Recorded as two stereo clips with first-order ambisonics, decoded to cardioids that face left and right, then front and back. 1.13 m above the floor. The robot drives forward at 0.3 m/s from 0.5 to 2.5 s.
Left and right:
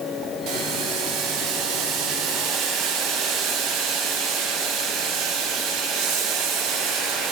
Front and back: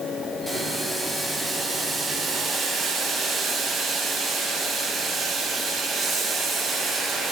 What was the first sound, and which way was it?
Boiling, 85° right.